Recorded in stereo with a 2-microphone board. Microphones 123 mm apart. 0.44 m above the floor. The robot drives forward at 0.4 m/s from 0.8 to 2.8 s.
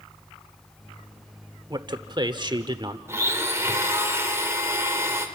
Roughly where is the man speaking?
Right.